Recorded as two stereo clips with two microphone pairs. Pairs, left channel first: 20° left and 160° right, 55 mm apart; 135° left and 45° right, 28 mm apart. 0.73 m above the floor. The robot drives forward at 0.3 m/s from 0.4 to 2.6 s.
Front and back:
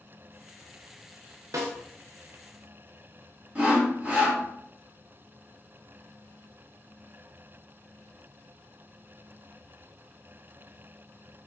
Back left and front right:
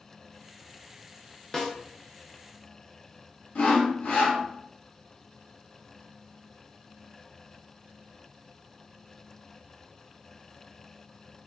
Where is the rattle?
I don't hear a rattle.